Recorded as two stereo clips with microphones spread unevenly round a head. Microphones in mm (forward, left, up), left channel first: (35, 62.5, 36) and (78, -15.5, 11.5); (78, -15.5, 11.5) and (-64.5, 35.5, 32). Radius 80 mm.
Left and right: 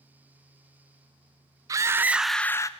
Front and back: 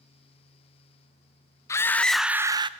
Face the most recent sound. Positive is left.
turn(degrees=145)